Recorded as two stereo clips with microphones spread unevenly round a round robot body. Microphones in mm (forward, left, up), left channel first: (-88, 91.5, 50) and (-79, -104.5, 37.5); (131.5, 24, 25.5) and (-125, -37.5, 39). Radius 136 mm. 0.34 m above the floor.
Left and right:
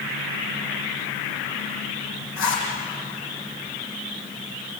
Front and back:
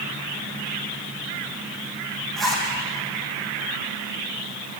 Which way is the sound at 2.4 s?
105° left.